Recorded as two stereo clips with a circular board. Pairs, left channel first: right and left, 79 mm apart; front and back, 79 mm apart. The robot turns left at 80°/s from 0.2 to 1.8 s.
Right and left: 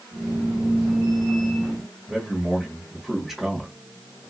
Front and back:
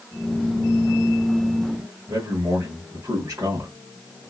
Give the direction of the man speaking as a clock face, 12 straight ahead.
6 o'clock.